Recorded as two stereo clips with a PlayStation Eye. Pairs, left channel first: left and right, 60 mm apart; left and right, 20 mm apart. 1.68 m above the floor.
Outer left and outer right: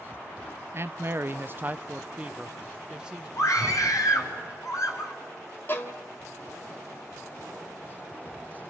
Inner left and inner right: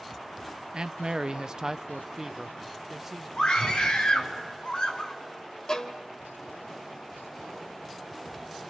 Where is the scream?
65° left (ahead or behind), 5 m.